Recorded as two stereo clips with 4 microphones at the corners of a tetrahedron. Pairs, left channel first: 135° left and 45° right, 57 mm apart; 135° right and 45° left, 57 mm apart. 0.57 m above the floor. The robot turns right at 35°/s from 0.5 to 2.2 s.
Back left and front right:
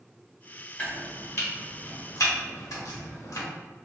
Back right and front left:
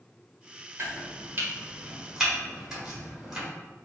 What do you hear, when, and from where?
0.8 s chopping: 80° left, 1.4 m; by 3.5 s 125° left, 1.4 m